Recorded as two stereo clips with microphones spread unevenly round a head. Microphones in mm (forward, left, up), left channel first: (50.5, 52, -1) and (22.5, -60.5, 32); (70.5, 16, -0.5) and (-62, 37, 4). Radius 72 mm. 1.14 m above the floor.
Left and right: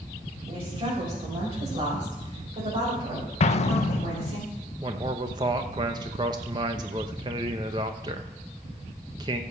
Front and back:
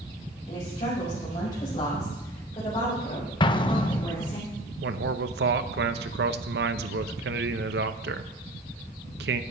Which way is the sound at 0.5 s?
60° right.